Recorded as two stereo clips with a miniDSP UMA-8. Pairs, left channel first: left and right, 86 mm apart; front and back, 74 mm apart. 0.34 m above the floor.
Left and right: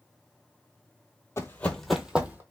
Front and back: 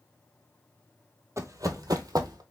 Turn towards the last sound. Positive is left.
turn(degrees=-155)